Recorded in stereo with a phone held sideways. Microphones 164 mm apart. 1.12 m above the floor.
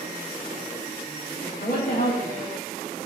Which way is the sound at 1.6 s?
60° left (ahead or behind).